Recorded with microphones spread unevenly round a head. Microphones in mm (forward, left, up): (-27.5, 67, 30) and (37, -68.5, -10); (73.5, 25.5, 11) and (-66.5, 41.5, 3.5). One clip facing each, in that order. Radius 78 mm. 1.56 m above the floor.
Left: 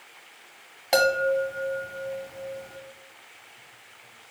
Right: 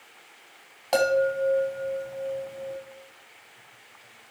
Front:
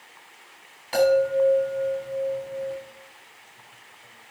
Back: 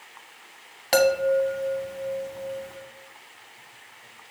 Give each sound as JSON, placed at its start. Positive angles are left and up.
{"t": 0.9, "sound": "a chime", "azimuth_deg": -165, "distance_m": 2.0}